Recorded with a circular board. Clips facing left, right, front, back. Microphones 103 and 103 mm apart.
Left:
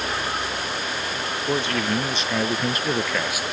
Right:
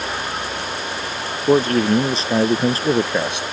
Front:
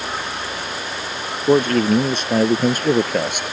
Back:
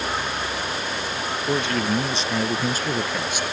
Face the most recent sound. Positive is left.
turn(degrees=-25)